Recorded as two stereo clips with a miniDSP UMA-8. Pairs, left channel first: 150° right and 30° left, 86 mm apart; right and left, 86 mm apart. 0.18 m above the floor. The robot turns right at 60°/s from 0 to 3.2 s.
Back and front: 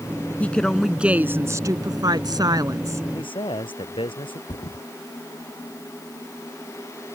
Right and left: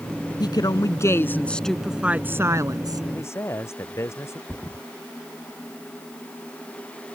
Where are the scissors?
No scissors in this recording.